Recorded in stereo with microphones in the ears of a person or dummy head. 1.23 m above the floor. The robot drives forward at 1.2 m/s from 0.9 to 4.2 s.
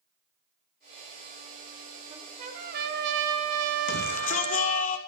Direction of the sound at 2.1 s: 35° right (ahead or behind).